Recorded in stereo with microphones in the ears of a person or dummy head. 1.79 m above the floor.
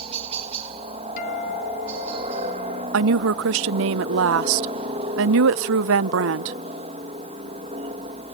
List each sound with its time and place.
0.0 s a helicopter: 30° right (ahead or behind)
1.2 s a guitar: 50° left (ahead or behind)
2.9 s a woman speaking: 70° right (ahead or behind)